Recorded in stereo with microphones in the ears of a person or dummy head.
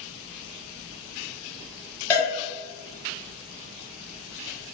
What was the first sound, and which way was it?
A cowbell, 10° left (ahead or behind).